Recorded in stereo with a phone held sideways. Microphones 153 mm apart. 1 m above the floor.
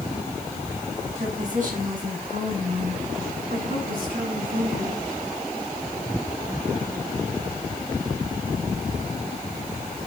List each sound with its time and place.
1.2 s a woman speaking: 55° right (ahead or behind), 9 m; by 5.0 s 65° right (ahead or behind), 11 m